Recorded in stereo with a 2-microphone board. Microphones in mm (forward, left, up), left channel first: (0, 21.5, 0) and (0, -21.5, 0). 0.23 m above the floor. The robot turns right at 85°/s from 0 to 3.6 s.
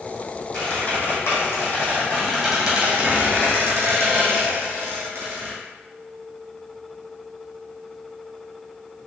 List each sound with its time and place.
0.5 s a squeak: 20° left, 1.8 m; by 5.5 s 80° right, 1.8 m